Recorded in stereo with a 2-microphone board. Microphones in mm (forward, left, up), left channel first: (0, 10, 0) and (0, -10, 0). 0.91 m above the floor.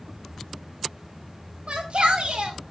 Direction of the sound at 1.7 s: 70° right (ahead or behind).